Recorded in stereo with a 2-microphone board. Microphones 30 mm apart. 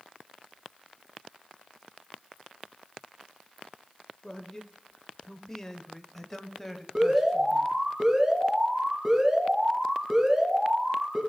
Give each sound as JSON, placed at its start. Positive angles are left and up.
{"t": 4.2, "sound": "a man speaking", "side_deg": 20, "distance_m": 1.0}
{"t": 7.0, "sound": "an alarm", "side_deg": -20, "distance_m": 3.5}